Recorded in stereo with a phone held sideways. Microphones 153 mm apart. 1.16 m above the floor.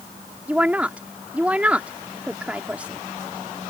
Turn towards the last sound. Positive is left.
turn(degrees=-10)  # may be behind; listen again after turning